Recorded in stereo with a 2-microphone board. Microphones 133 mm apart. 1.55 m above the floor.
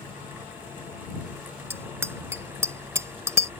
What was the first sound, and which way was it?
A bicycle bell, 20° right (ahead or behind).